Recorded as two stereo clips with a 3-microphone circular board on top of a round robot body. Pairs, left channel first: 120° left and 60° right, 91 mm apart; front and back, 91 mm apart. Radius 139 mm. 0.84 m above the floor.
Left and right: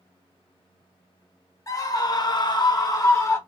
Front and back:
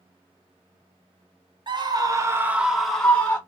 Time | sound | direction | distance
1.7 | a scream | 165° left | 0.9 m